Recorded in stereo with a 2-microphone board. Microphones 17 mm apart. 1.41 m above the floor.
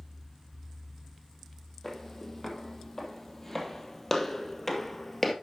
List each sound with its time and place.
1.8 s footsteps: 20° left (ahead or behind), 4 m; by 5.3 s 15° left (ahead or behind), 2 m